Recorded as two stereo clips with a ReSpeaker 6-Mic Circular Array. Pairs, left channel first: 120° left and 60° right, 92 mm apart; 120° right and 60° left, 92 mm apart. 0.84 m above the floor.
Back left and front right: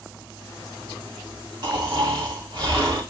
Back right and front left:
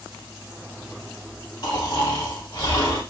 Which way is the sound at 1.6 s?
95° right.